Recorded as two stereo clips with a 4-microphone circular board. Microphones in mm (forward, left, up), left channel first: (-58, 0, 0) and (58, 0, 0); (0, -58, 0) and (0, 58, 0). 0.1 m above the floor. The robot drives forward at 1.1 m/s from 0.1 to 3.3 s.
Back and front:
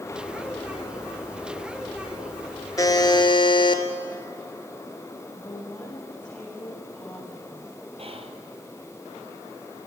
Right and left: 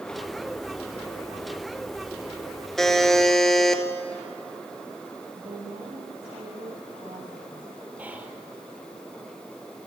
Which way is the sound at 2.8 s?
175° right.